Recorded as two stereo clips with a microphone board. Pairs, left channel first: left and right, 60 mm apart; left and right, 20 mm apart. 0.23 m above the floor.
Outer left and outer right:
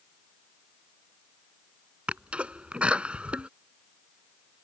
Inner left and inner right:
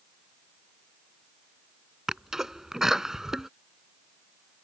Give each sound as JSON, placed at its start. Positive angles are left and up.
{"t": 2.1, "sound": "a sneeze", "side_deg": -20}